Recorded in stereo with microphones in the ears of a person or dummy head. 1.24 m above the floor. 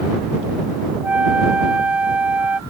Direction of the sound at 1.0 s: 5° right (ahead or behind).